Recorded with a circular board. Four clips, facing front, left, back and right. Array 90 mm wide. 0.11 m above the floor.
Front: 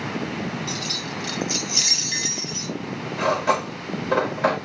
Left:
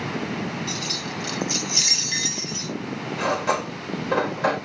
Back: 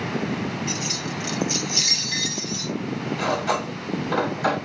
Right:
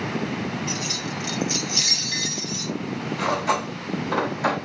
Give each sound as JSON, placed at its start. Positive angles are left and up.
{"t": 0.7, "sound": "keys jangling", "azimuth_deg": -140, "distance_m": 1.1}
{"t": 3.2, "sound": "cutlery clinking", "azimuth_deg": 20, "distance_m": 3.0}